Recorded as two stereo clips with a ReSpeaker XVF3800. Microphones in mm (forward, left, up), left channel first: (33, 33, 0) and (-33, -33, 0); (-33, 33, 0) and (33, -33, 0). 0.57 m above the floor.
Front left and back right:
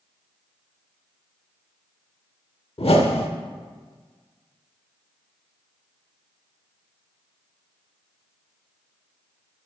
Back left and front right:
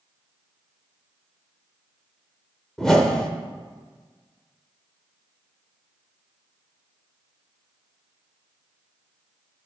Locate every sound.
2.8 s a whoosh: 50° left, 0.6 m